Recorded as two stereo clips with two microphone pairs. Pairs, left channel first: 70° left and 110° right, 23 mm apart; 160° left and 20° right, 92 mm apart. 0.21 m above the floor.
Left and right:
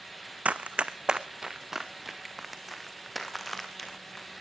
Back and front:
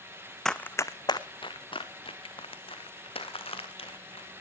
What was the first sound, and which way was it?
Running footsteps, 115° right.